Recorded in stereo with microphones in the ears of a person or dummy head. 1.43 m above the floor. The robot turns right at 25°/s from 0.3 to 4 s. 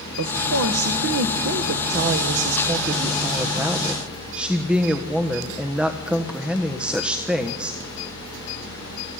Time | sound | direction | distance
0.2 | a woman speaking | 100° right | 1.3 m